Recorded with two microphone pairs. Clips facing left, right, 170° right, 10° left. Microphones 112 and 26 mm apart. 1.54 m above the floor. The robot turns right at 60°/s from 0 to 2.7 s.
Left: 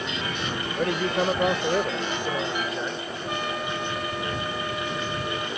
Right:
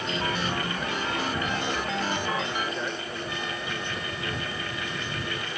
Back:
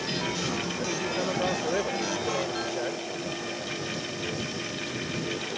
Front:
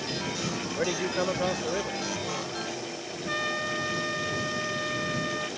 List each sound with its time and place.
0.8 s a man speaking: 55° left; by 3.0 s 170° left
3.3 s a trumpet: 55° left